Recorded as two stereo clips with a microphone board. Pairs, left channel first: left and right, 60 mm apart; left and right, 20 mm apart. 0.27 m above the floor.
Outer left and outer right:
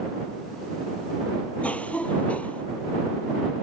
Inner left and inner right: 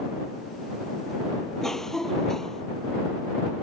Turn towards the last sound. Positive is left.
turn(degrees=20)  # may be behind; listen again after turning